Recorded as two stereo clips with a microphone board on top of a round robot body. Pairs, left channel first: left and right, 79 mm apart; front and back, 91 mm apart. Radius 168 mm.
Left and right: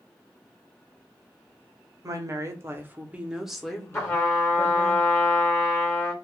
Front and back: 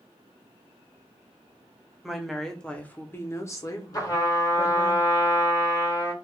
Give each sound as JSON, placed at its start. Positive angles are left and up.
{"t": 2.0, "sound": "a woman speaking", "azimuth_deg": -95, "distance_m": 1.1}
{"t": 3.9, "sound": "a trumpet", "azimuth_deg": 35, "distance_m": 1.7}